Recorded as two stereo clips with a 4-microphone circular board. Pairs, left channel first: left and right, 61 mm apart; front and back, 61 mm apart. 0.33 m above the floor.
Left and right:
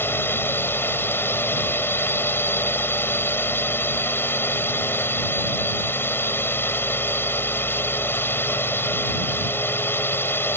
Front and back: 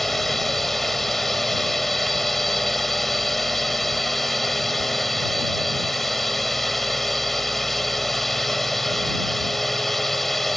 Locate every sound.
0.0 s a drone: 85° left